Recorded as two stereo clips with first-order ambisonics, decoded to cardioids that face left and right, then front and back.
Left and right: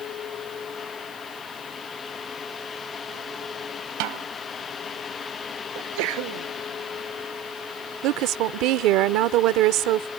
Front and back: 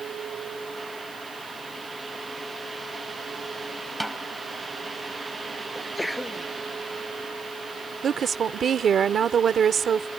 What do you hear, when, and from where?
4.0 s a snare drum: 90° right
5.8 s a sneeze: 85° right
8.0 s a woman speaking: 120° right